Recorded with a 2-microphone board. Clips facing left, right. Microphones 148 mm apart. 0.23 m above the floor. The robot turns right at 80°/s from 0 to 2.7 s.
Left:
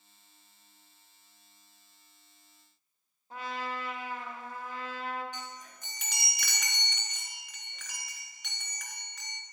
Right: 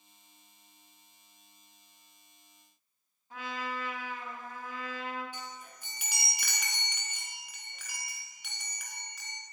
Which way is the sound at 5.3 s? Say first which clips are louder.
Left 1 dB; 10° right (ahead or behind).